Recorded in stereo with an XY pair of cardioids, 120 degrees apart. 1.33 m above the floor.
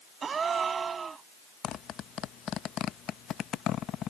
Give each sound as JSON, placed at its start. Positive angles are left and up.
{"t": 0.2, "sound": "a gasp", "azimuth_deg": -35}
{"t": 1.6, "sound": "a zipper", "azimuth_deg": 60}